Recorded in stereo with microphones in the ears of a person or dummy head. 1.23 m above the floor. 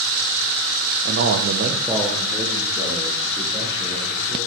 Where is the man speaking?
50° right (ahead or behind), 0.9 m; by 4.4 s 25° left (ahead or behind), 3.5 m.